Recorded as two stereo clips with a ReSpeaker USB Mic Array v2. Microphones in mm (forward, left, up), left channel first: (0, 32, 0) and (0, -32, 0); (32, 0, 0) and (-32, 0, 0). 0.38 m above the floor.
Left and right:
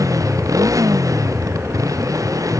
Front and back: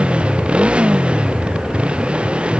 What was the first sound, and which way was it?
A motorcycle, 110° right.